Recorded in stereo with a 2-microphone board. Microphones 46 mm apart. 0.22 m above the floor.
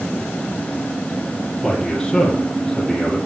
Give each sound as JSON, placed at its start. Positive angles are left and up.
{"t": 1.6, "sound": "a man speaking", "side_deg": 5, "distance_m": 8.0}